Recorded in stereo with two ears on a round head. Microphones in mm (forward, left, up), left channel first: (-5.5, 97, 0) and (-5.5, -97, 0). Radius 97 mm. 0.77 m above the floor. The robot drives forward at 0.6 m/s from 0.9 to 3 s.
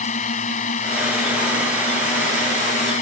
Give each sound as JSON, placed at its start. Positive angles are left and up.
{"t": 0.0, "sound": "a drone", "side_deg": 35}